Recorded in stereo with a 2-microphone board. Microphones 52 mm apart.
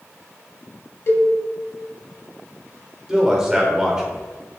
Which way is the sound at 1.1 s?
55° left (ahead or behind).